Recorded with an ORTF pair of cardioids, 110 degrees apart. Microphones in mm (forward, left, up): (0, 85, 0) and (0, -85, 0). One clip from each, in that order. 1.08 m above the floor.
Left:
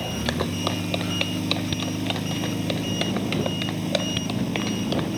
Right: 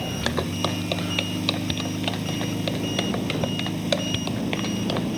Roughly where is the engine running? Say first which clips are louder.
Even; ahead.